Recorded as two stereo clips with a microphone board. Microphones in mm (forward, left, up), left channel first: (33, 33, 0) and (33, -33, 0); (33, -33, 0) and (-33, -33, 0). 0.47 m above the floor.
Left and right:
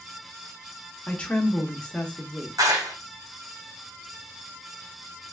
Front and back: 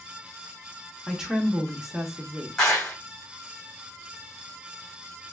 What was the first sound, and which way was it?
A woman speaking, 115° left.